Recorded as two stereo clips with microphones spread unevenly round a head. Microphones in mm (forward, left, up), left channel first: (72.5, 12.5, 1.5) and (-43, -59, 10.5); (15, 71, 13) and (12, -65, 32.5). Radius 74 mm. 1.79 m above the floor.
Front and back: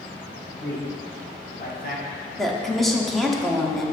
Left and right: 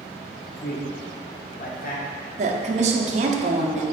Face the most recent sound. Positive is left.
turn(degrees=-60)